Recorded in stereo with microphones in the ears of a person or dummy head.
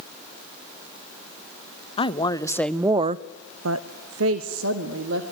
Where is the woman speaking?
25° left (ahead or behind), 1.2 m; by 5.3 s 65° right (ahead or behind), 2 m.